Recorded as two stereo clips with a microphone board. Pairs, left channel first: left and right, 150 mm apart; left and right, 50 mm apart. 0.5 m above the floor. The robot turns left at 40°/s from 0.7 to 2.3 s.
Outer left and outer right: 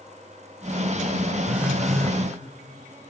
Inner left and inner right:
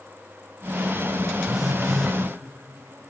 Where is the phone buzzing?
15° right (ahead or behind), 1.3 m; by 2.2 s 15° left (ahead or behind), 1.3 m.